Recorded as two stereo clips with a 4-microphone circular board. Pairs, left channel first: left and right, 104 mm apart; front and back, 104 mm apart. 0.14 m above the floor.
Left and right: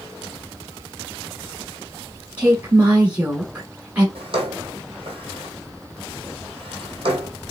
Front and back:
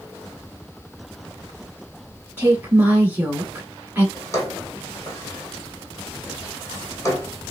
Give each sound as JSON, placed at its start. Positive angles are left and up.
{"t": 2.4, "sound": "a woman speaking", "azimuth_deg": -140, "distance_m": 1.2}
{"t": 4.2, "sound": "a drawer", "azimuth_deg": -65, "distance_m": 1.6}